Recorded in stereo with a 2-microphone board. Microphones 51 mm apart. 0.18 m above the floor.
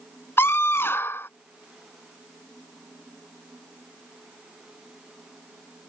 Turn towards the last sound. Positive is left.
turn(degrees=50)  # may be behind; listen again after turning